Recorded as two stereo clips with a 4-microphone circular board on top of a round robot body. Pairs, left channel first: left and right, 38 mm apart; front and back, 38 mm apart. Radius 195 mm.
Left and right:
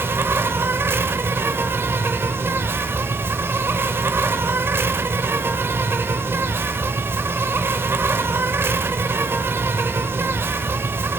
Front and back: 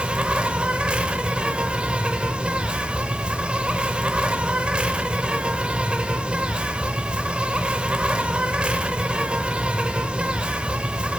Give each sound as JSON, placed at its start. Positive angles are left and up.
{"t": 0.0, "sound": "an insect", "azimuth_deg": -115, "distance_m": 0.8}